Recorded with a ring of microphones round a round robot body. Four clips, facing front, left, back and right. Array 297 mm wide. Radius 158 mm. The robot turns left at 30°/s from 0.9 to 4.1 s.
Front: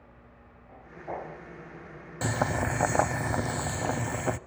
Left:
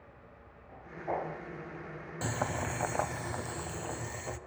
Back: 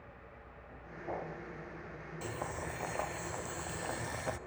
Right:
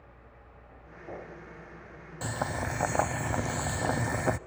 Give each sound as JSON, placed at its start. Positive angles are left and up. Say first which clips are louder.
{"t": 2.2, "sound": "boiling", "louder": "right 1 dB, front 12 dB", "azimuth_deg": 0, "distance_m": 0.8}